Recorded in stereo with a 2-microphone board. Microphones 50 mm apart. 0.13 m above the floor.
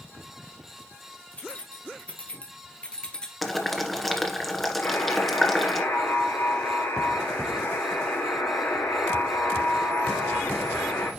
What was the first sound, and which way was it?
Keys jangling, 25° left (ahead or behind).